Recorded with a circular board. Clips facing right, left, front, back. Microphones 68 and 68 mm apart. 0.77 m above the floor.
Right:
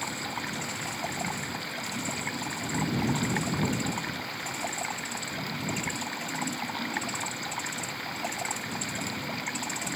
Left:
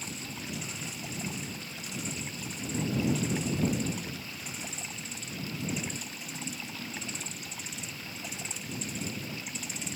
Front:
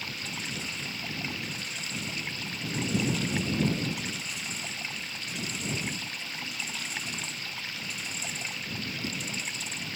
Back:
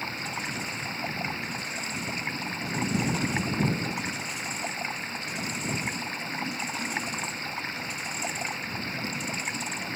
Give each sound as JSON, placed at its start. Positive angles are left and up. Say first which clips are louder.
{"t": 0.0, "sound": "running water", "louder": "right 7 dB, back 4 dB", "azimuth_deg": -125}